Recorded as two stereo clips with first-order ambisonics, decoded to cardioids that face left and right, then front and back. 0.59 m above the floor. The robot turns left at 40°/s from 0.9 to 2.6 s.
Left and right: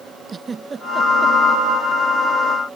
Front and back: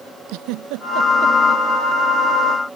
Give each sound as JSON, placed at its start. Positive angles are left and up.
{"t": 0.3, "sound": "a giggle", "azimuth_deg": -165}